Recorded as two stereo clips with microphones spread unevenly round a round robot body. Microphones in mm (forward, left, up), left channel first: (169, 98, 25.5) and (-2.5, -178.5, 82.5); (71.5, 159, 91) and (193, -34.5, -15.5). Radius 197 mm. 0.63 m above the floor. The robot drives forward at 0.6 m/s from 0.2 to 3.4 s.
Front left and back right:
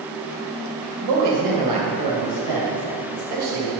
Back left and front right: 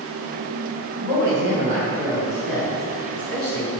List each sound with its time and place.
1.0 s a woman speaking: 130° right, 3 m; by 3.7 s 145° right, 4 m